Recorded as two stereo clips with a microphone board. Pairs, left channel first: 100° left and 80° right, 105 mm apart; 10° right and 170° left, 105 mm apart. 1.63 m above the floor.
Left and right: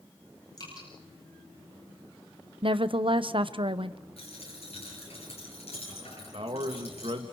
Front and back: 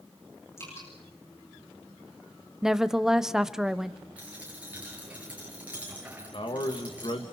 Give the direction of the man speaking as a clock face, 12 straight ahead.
2 o'clock.